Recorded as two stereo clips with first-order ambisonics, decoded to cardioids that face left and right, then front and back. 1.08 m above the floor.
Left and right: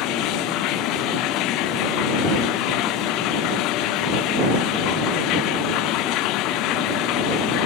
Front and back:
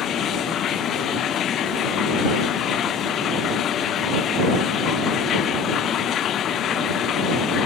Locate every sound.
0.0 s running water: 55° left